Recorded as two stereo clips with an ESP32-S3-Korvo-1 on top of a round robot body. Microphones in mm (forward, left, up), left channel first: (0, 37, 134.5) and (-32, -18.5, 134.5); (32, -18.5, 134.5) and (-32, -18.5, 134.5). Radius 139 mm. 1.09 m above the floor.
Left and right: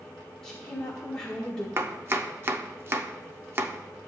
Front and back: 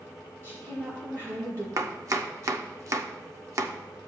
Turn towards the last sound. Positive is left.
turn(degrees=-165)